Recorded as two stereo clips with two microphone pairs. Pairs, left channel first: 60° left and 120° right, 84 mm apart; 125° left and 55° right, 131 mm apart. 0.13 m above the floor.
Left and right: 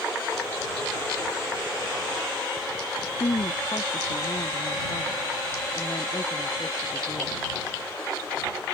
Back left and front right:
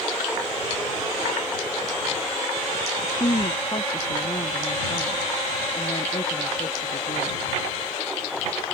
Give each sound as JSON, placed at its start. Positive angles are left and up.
{"t": 3.0, "sound": "a woman speaking", "azimuth_deg": 75}